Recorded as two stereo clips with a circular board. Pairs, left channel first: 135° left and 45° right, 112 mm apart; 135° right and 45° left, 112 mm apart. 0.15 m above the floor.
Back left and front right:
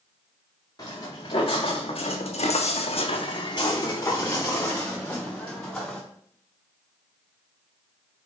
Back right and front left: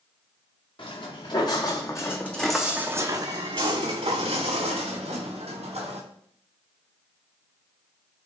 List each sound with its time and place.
0.8 s footsteps: 175° right, 1.3 m; by 6.0 s 50° left, 2 m